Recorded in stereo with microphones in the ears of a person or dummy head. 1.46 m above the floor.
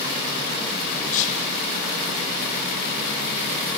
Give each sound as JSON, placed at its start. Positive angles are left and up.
{"t": 1.1, "sound": "whispering", "side_deg": 35, "distance_m": 1.0}